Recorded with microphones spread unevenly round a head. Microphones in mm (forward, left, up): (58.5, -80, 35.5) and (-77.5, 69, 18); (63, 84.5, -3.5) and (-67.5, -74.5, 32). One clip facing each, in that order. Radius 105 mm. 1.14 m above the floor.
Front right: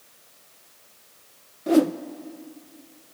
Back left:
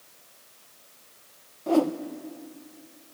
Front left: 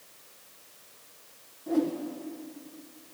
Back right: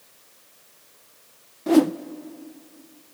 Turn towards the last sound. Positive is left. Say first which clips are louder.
# front right 4 dB, back right 10 dB
turn(degrees=-120)